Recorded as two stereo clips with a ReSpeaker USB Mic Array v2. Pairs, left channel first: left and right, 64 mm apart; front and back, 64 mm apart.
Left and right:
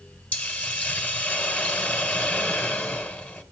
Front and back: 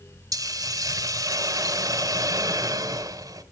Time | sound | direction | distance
0.3 | a hiss | 155° left | 2.0 m